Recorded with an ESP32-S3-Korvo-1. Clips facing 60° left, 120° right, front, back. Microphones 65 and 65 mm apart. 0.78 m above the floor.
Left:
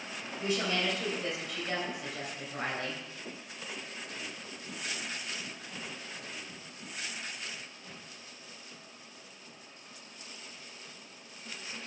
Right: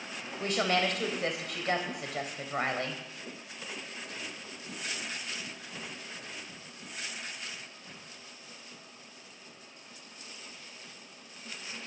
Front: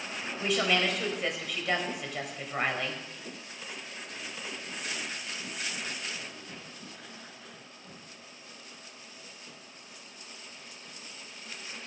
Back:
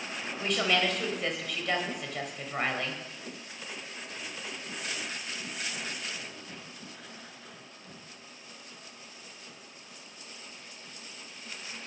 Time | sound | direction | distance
0.4 | a woman speaking | 90° right | 3 m